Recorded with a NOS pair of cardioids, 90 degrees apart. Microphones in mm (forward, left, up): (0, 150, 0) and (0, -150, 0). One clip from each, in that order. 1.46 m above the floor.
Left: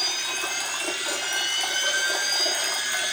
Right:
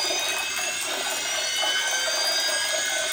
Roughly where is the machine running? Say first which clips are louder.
Right 1 dB; ahead.